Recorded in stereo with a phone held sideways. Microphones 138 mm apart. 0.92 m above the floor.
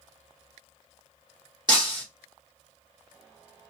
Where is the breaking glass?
35° right (ahead or behind), 1.8 m.